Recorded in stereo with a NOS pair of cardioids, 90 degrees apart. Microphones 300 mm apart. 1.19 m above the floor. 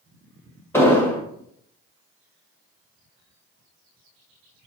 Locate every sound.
0.7 s an explosion: 10° left, 1.3 m